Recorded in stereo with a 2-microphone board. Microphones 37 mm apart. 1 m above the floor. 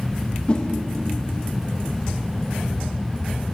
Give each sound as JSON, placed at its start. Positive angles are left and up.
{"t": 0.5, "sound": "a whoosh", "side_deg": 30, "distance_m": 1.1}